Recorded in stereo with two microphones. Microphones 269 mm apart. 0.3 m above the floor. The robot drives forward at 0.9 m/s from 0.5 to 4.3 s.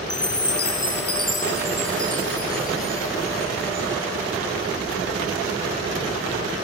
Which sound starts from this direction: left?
A chime, at 0.1 s.